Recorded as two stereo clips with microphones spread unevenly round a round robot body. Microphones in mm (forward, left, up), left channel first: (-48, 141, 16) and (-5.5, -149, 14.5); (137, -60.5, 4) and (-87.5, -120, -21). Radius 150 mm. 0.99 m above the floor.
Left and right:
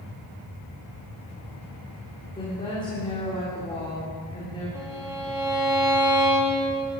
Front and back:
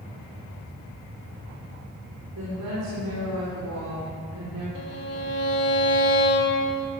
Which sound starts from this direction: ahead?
A violin, at 4.8 s.